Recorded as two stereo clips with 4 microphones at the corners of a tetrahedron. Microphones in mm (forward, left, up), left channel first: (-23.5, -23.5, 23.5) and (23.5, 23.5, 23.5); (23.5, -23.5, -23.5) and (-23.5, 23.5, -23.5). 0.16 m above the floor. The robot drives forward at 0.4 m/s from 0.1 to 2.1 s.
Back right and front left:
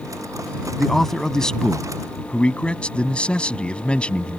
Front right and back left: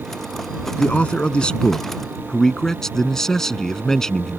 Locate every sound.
0.8 s a man speaking: 55° right; by 4.4 s 110° right